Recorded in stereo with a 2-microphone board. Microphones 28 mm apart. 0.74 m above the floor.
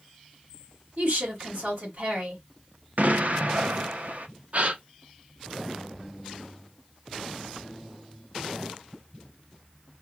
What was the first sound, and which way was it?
A woman speaking, 70° right (ahead or behind).